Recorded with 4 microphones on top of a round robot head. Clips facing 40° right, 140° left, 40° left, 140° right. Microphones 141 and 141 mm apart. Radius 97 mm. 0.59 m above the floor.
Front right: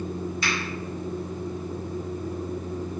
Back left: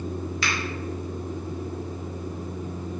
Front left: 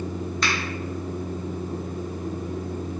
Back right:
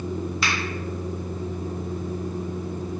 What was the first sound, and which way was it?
A finger snap, 140° left.